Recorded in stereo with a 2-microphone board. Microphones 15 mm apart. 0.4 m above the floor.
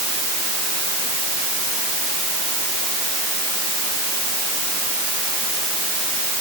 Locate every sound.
Only background noise.